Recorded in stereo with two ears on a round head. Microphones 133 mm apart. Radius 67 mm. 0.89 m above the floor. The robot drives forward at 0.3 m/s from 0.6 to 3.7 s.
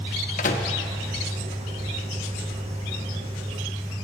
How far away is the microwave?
About 0.7 m.